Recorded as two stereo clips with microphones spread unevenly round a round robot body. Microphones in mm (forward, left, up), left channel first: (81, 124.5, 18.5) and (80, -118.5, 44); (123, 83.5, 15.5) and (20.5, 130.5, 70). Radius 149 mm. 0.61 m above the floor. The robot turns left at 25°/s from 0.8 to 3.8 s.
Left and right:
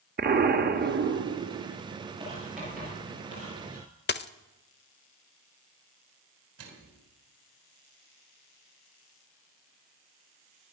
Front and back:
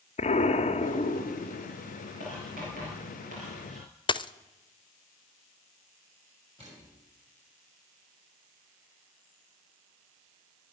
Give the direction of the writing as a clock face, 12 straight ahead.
6 o'clock.